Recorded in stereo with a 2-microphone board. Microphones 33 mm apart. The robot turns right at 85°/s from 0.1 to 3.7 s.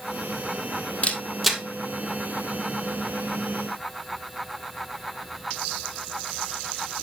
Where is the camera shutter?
45° left (ahead or behind), 1.6 m; by 1.6 s 10° right (ahead or behind), 1.6 m.